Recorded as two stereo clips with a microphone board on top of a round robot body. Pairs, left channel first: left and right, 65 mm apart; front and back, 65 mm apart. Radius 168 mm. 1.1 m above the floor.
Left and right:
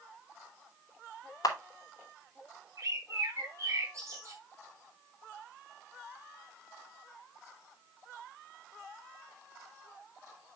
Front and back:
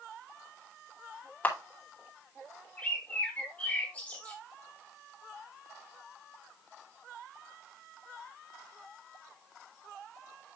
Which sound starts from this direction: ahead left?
A camera shutter, at 1.4 s.